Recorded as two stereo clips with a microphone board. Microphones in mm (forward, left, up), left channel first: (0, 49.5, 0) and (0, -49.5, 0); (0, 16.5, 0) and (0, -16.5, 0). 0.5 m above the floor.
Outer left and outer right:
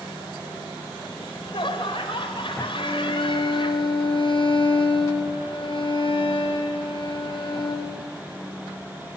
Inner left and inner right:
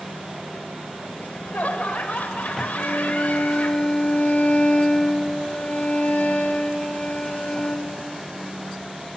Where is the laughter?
60° left (ahead or behind), 2.0 m.